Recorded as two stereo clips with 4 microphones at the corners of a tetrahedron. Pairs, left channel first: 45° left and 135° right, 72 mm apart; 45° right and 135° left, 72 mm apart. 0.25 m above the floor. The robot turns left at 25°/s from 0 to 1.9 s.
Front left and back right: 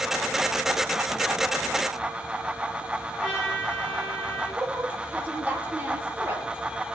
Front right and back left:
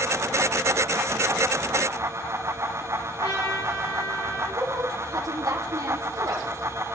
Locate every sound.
3.2 s a trumpet: 35° right, 9.5 m
4.5 s a woman speaking: 160° left, 6.5 m